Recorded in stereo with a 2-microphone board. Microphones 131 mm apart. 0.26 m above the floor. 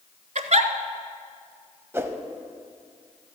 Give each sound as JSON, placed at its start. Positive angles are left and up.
{"t": 0.3, "sound": "a giggle", "side_deg": -65, "distance_m": 0.7}
{"t": 1.9, "sound": "a whoosh", "side_deg": -20, "distance_m": 0.7}